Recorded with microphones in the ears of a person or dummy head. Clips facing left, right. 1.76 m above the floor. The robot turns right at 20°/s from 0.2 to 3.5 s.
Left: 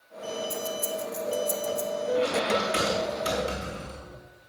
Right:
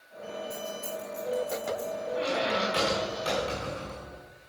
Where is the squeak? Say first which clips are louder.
Left 3 dB; 35° left (ahead or behind), 5 m; by 4.2 s 10° left (ahead or behind), 5 m.